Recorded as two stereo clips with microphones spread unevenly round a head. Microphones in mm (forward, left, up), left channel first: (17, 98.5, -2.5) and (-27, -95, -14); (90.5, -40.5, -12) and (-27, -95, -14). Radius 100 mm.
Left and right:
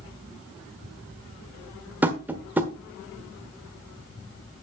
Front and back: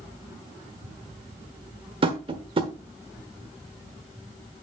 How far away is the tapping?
About 1.1 m.